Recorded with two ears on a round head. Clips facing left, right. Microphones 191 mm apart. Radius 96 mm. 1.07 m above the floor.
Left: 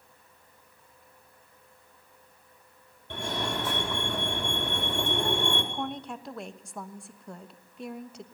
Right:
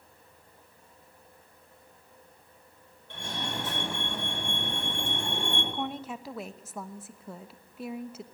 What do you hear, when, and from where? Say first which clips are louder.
3.1 s a fire alarm: left 5 dB; 50° left (ahead or behind), 4.5 m
5.7 s a woman speaking: even; 5° right (ahead or behind), 1.1 m